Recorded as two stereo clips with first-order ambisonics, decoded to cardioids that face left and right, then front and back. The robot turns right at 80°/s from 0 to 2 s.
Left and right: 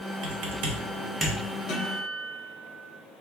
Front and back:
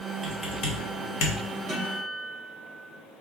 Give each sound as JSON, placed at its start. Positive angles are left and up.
{"t": 0.2, "sound": "typing on a keyboard", "azimuth_deg": -85, "distance_m": 1.0}
{"t": 1.7, "sound": "a guitar", "azimuth_deg": 110, "distance_m": 1.5}